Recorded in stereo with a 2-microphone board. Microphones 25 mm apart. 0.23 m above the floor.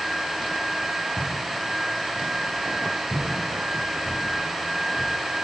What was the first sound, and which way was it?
Footsteps, 80° left.